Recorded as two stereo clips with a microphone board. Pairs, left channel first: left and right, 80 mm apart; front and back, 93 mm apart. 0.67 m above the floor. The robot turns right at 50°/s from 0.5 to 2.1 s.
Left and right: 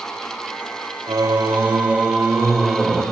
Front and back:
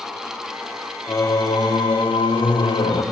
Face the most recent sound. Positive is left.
turn(degrees=-10)